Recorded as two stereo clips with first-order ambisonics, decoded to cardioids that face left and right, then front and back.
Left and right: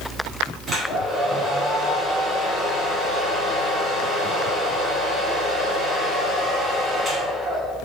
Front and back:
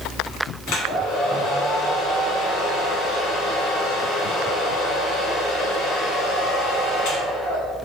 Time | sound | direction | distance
0.7 | a hair dryer | 15° right | 1.7 m